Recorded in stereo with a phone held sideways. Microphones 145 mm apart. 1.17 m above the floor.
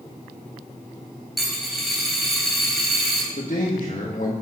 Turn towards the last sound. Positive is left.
turn(degrees=65)  # may be behind; listen again after turning